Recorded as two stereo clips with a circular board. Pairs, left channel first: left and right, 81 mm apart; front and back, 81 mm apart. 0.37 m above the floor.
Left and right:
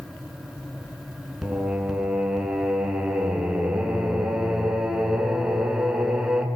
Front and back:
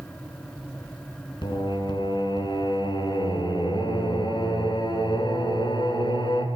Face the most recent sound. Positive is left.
turn(degrees=-5)